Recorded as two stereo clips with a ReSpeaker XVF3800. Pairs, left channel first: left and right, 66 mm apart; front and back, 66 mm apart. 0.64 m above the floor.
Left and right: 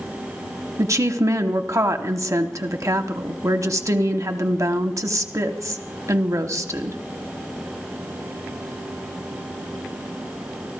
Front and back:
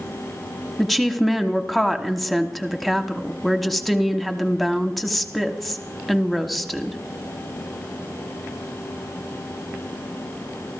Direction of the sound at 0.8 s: 90° right.